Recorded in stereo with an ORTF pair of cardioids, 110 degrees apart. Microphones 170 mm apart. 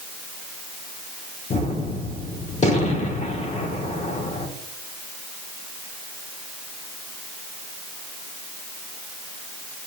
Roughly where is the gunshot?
Ahead left.